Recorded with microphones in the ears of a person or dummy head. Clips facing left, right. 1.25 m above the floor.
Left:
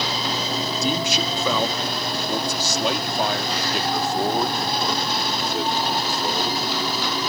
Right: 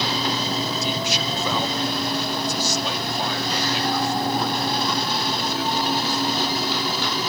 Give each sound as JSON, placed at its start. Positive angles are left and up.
{"t": 0.8, "sound": "a man speaking", "side_deg": 80}